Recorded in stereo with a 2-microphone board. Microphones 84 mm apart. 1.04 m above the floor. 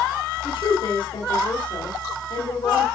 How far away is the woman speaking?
About 3.5 m.